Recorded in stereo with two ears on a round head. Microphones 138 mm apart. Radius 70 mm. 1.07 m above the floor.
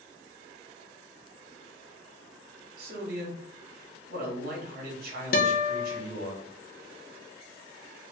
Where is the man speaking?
65° right (ahead or behind), 1.7 m.